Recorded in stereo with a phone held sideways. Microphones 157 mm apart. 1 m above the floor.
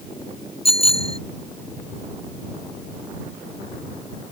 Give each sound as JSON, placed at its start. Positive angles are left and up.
{"t": 0.7, "sound": "a bicycle bell", "side_deg": 35}